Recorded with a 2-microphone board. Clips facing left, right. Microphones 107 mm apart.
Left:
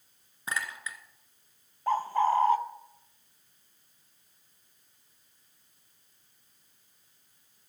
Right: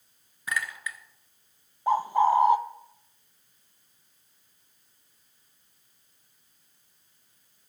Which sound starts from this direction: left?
A clink, at 0.5 s.